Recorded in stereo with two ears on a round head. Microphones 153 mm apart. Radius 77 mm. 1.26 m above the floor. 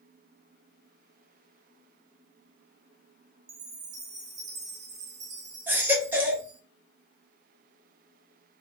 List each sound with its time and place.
3.5 s a chime: 40° right (ahead or behind), 0.6 m
5.7 s a baby crying: 10° right (ahead or behind), 0.8 m